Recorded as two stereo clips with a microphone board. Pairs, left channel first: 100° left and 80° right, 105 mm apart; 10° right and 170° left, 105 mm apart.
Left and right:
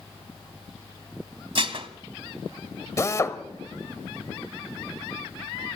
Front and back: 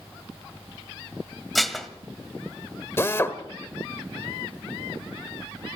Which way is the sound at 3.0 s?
50° left.